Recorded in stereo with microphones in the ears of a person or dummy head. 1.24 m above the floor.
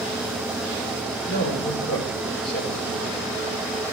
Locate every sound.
1.3 s a woman speaking: 70° left (ahead or behind), 4.5 m